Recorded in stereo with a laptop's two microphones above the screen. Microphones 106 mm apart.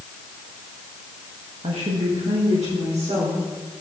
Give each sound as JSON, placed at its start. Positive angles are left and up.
{"t": 1.6, "sound": "a woman speaking", "side_deg": -70, "distance_m": 1.2}